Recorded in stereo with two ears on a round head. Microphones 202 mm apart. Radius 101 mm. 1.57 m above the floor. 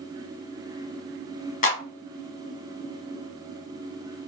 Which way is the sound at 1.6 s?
35° left (ahead or behind).